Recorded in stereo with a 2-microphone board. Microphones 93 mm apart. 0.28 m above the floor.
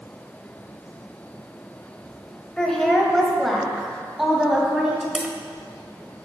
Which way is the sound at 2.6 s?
10° left (ahead or behind).